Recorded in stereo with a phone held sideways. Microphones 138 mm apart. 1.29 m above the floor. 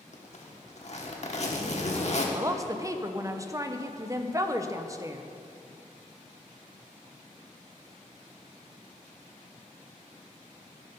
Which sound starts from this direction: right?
A woman speaking, at 2.4 s.